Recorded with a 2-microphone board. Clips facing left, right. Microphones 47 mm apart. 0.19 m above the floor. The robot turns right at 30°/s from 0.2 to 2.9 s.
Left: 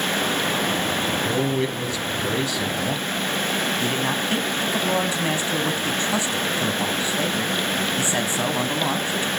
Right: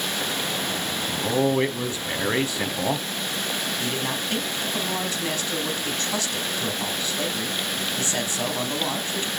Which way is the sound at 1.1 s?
25° right (ahead or behind).